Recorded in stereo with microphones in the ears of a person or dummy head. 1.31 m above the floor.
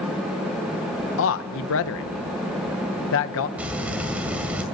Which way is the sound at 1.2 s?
70° left (ahead or behind).